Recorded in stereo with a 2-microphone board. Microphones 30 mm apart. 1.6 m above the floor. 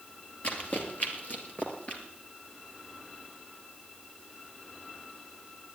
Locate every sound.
0.4 s running footsteps: 45° left (ahead or behind), 2.5 m; by 2.0 s 40° left (ahead or behind), 2 m